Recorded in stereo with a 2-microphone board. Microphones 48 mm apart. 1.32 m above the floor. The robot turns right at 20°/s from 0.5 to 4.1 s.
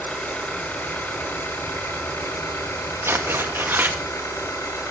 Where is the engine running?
30° left, 9 m; by 4.9 s 100° left, 9 m.